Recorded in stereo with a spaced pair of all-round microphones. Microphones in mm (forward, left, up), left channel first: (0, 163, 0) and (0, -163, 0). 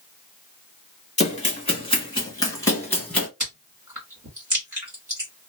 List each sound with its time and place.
1.2 s running footsteps: 20° left (ahead or behind), 1.7 m; by 3.3 s 5° left (ahead or behind), 1.5 m
3.4 s chewing: 55° right (ahead or behind), 1.5 m